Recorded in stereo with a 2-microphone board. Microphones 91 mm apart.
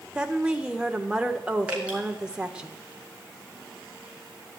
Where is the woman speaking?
10° right (ahead or behind), 1.5 m.